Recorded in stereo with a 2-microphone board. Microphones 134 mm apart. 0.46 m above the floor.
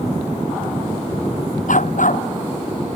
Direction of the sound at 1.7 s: 70° left (ahead or behind).